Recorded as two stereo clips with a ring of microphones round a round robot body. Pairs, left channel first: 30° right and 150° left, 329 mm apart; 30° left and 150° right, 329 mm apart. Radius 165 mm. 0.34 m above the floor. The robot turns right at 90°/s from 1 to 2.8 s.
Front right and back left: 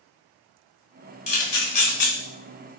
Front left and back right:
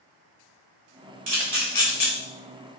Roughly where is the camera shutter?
Right.